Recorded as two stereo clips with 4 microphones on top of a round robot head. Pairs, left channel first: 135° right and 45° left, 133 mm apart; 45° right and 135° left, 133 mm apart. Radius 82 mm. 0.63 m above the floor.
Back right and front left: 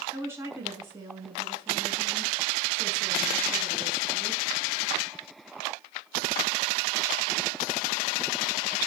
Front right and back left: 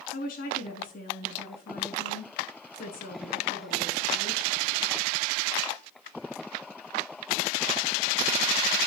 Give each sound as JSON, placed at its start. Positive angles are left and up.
{"t": 0.1, "sound": "a woman speaking", "azimuth_deg": -30, "distance_m": 6.5}